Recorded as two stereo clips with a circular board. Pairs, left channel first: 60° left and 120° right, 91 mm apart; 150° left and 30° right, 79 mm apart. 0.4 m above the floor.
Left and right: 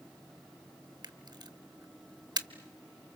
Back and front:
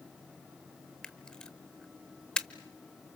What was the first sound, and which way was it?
A camera shutter, 130° right.